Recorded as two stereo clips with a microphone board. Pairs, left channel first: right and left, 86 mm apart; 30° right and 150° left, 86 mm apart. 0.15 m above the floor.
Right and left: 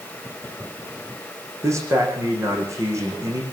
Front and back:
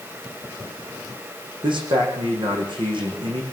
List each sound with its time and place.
1.6 s a man speaking: 145° left, 8 m